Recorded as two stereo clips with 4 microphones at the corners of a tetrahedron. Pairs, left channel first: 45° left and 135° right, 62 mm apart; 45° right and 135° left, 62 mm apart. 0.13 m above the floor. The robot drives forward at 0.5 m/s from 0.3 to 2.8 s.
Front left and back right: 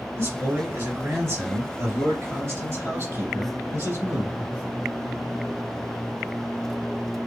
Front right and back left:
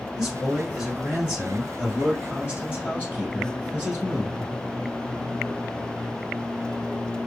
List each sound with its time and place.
0.2 s a man speaking: 150° right, 2 m; by 4.5 s 165° right, 3 m